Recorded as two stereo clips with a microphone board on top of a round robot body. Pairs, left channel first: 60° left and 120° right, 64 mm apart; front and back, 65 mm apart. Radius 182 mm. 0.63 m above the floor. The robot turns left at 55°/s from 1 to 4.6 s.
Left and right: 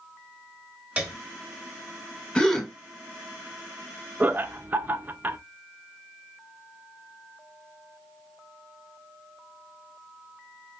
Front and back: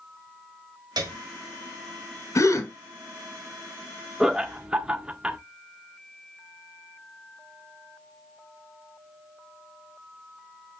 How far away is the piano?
About 0.7 m.